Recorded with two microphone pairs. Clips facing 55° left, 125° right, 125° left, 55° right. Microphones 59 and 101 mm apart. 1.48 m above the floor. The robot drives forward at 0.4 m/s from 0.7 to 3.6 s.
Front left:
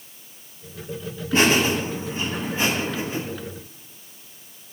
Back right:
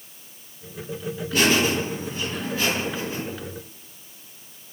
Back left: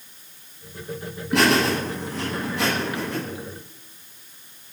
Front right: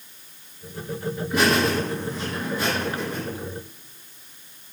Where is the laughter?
115° left, 9.5 m.